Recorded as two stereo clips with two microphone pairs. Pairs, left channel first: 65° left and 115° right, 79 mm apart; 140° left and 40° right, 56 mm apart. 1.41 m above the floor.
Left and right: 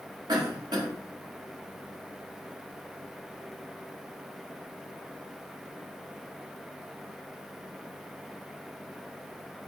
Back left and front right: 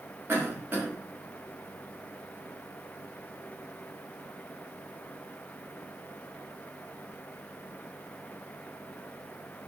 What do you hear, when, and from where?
0.3 s a cough: 90° right, 1.1 m